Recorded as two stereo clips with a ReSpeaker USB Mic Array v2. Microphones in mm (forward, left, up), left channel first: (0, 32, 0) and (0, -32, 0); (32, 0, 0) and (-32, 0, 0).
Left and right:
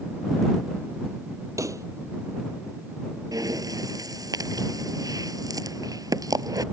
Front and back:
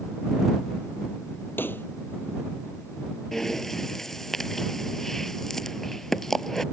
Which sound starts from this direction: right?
Breathing, at 3.3 s.